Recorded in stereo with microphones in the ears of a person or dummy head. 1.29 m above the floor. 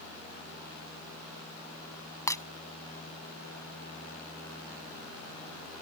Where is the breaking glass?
20° left (ahead or behind).